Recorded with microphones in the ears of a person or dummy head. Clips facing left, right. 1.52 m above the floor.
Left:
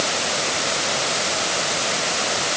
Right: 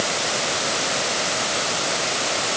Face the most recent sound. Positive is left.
No sound to turn to.